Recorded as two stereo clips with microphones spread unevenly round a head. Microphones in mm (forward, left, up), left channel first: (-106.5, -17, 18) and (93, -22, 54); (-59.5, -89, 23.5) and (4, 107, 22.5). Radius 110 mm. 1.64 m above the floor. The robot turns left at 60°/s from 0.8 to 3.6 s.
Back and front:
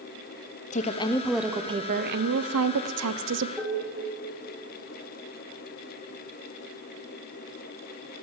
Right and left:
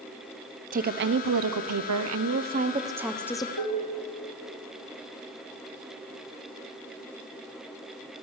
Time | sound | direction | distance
0.7 | a woman speaking | 120° left | 1.0 m
3.6 | dishes clattering | 90° right | 2.5 m